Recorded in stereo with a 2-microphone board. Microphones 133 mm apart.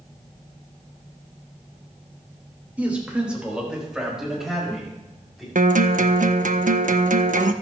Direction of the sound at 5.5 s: 75° right (ahead or behind).